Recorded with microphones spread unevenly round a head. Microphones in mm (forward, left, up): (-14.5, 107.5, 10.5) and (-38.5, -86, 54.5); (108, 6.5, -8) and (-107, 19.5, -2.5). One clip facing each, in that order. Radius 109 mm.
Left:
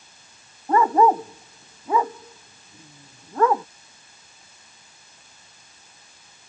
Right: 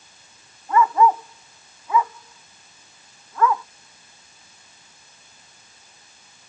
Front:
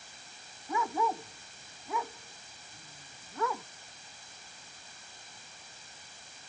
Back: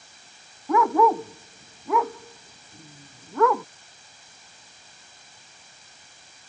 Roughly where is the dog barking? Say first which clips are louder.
Left 1 dB, back 12 dB; behind left.